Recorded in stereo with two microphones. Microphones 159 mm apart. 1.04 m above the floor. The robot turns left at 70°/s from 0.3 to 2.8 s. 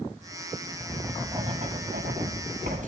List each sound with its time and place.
0.8 s writing: 10° left (ahead or behind), 6.5 m; by 2.9 s 50° right (ahead or behind), 6.5 m